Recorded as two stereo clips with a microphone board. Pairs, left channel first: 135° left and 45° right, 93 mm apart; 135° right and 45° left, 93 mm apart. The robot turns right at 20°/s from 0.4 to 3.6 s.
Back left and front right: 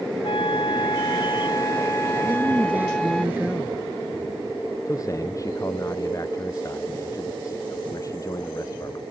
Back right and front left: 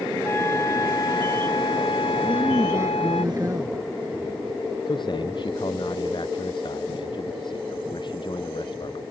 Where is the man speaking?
170° right.